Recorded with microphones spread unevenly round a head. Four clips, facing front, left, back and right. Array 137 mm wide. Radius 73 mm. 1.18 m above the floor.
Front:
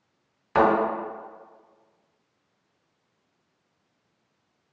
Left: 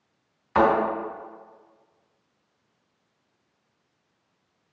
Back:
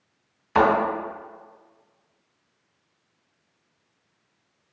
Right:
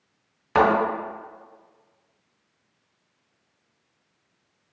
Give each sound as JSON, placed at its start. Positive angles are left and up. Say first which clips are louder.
{"t": 0.6, "sound": "a thud", "louder": "right 1 dB, back 1 dB", "azimuth_deg": -75, "distance_m": 1.7}